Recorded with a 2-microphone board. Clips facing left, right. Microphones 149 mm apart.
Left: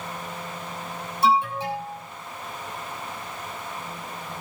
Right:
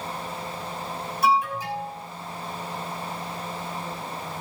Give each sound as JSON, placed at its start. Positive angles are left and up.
{"t": 1.2, "sound": "an alarm", "side_deg": 30, "distance_m": 5.0}